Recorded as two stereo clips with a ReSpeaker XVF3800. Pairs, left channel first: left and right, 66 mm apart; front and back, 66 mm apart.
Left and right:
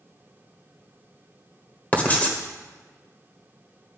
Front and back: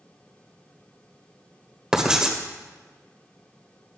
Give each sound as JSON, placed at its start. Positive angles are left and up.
{"t": 1.9, "sound": "writing", "azimuth_deg": 115, "distance_m": 1.3}